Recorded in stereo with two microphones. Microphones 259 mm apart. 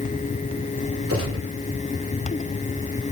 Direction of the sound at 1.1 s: 55° right (ahead or behind).